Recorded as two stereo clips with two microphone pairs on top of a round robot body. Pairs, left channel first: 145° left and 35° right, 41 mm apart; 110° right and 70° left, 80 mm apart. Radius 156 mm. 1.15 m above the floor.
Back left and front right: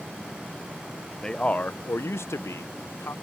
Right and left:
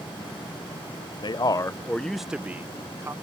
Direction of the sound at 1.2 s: 140° right.